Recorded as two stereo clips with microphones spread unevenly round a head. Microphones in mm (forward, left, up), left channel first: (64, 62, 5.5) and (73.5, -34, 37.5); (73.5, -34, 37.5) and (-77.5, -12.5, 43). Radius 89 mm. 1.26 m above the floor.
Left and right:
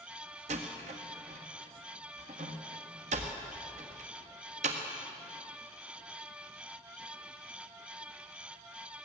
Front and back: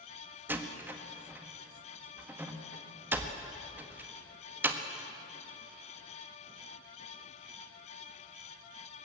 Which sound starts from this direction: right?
A door slam, at 0.5 s.